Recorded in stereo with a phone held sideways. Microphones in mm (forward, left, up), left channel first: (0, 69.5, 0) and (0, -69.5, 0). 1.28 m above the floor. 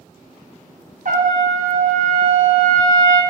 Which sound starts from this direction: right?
A trumpet, at 1.1 s.